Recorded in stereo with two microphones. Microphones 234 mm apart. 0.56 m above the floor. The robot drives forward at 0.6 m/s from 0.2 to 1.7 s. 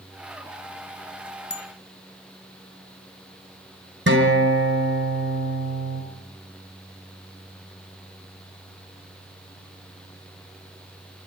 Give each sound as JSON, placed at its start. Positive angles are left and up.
{"t": 1.5, "sound": "a bicycle bell", "side_deg": 50, "distance_m": 3.5}
{"t": 4.1, "sound": "a guitar", "side_deg": -50, "distance_m": 4.5}